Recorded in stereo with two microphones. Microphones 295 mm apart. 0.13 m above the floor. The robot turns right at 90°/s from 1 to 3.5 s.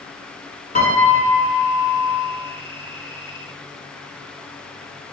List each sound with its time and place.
0.8 s a piano: 30° left (ahead or behind), 0.9 m; by 2.2 s 5° right (ahead or behind), 0.9 m